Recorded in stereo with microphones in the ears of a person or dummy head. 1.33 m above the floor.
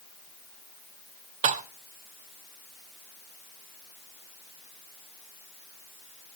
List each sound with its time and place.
1.4 s dishes clattering: 40° right (ahead or behind), 0.7 m